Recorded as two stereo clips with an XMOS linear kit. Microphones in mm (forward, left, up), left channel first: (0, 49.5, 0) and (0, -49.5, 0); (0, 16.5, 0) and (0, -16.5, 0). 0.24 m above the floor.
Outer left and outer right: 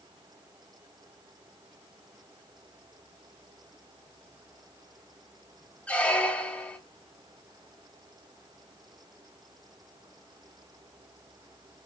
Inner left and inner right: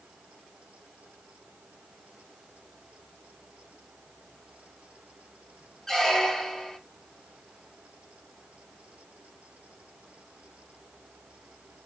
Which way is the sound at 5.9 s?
15° left (ahead or behind).